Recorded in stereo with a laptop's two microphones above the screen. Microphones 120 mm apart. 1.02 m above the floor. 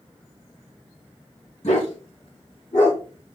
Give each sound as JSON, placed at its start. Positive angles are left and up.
{"t": 1.6, "sound": "a dog barking", "side_deg": 75, "distance_m": 4.0}